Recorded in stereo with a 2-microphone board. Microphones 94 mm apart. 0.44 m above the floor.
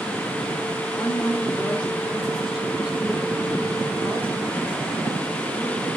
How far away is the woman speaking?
About 1.3 m.